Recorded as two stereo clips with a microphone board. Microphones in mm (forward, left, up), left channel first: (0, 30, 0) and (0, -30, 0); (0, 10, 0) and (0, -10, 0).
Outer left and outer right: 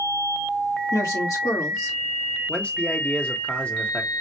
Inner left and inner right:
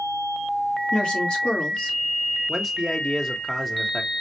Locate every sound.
0.9 s a woman speaking: 75° left (ahead or behind), 2.5 m
2.5 s a man speaking: 20° left (ahead or behind), 1.2 m